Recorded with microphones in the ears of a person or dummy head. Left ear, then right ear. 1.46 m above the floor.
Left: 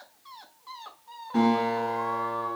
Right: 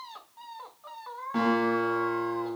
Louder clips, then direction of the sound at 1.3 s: Left 1 dB; 15° right (ahead or behind).